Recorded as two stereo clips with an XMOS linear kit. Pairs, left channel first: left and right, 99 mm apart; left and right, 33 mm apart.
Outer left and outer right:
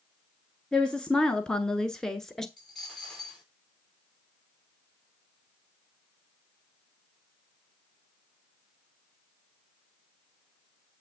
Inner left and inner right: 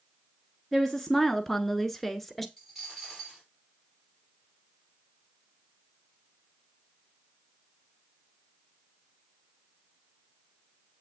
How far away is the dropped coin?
About 4.5 m.